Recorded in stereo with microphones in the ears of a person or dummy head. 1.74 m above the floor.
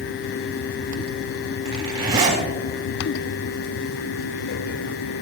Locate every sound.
1.6 s a zipper: 30° right (ahead or behind), 3.5 m